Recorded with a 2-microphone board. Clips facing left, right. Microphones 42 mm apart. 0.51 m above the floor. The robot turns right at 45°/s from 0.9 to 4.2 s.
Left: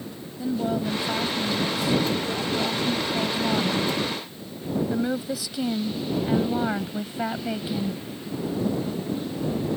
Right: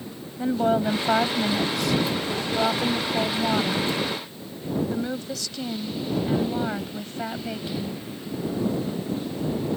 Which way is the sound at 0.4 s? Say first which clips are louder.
Right 4 dB; 135° right.